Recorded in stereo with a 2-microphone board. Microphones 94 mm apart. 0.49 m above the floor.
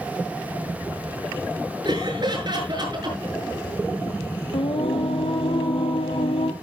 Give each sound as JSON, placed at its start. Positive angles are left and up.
{"t": 1.9, "sound": "laughter", "side_deg": -50, "distance_m": 6.5}
{"t": 4.5, "sound": "singing", "side_deg": 75, "distance_m": 1.9}